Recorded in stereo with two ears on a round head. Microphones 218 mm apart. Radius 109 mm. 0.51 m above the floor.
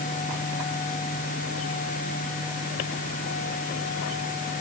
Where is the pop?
No pop in this recording.